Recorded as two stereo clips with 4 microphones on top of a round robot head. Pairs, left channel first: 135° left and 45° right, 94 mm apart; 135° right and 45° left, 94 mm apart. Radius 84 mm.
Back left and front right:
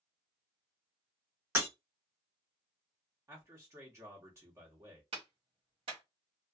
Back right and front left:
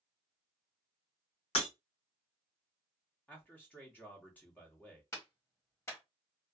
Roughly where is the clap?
Right.